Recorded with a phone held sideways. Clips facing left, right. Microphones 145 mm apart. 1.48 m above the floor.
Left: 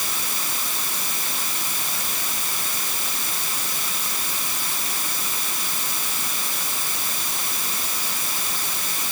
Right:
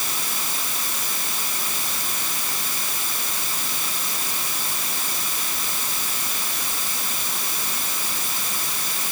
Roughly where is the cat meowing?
I don't hear a cat meowing.